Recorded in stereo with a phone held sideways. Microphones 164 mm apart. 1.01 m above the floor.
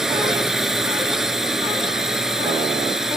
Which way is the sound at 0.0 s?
5° right (ahead or behind).